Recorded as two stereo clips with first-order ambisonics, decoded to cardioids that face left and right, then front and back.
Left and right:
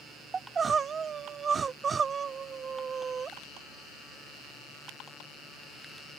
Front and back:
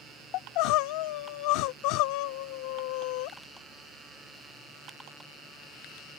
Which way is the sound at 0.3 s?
20° right.